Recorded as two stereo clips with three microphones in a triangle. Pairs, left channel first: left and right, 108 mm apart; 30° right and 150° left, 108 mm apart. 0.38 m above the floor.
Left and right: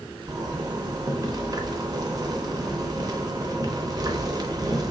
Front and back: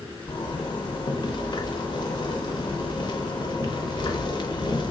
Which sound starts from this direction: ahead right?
A zipper, at 0.3 s.